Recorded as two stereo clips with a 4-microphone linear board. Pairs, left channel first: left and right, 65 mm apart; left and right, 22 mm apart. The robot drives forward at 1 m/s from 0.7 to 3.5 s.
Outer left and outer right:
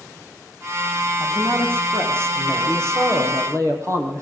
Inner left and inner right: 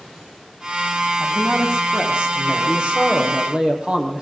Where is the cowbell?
I don't hear a cowbell.